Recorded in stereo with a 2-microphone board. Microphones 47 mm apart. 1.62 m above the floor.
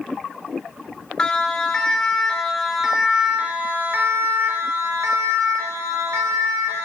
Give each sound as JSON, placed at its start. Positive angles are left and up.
{"t": 1.2, "sound": "a siren", "side_deg": 15, "distance_m": 3.0}